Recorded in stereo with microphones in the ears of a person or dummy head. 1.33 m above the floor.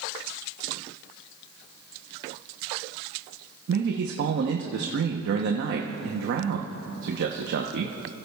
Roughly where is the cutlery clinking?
No cutlery clinking in this recording.